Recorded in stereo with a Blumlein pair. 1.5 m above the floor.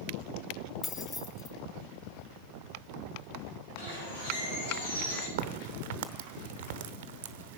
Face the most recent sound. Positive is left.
turn(degrees=-50)